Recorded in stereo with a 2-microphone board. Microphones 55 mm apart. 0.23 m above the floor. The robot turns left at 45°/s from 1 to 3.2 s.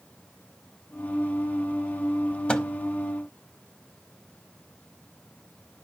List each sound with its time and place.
2.5 s a microwave: 20° left (ahead or behind), 0.7 m